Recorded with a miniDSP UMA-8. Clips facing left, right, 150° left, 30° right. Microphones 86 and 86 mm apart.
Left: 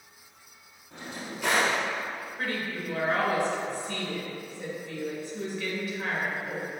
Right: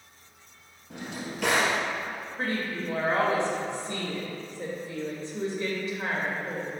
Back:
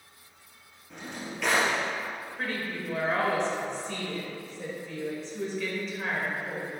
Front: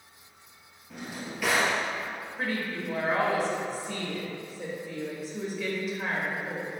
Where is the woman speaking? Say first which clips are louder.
Right 3 dB, front 2 dB; 105° right, 1.5 m.